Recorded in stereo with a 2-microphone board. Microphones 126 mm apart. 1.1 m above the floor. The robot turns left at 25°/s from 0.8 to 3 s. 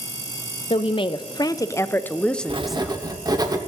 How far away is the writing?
About 1.2 m.